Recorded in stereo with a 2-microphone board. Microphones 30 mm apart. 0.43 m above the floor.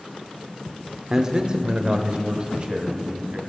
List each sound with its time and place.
1.1 s a man speaking: 20° right (ahead or behind), 0.8 m; by 3.4 s 40° right (ahead or behind), 2.5 m